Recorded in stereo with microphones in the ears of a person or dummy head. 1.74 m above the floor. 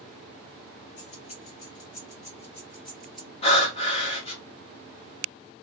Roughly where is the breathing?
Left.